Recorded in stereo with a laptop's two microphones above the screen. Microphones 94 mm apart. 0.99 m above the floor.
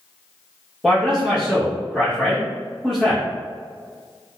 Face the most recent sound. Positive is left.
turn(degrees=-5)  # may be behind; listen again after turning